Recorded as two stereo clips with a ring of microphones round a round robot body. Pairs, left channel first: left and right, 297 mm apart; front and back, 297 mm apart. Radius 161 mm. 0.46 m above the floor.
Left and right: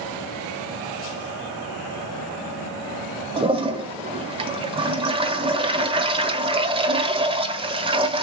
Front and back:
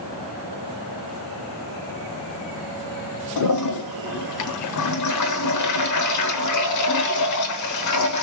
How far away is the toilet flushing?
About 1.1 m.